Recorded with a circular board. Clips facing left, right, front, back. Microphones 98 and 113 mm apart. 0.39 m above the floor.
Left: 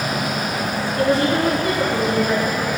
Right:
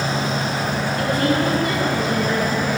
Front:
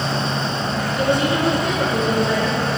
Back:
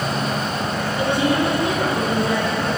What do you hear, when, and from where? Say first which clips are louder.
1.0 s a woman speaking: left 3 dB, even; 35° left, 4.5 m